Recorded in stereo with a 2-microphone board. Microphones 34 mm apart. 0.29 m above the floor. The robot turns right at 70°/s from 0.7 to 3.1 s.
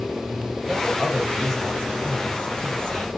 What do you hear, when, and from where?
0.7 s a man speaking: 15° right (ahead or behind), 1.1 m; by 3.1 s 20° left (ahead or behind), 1.1 m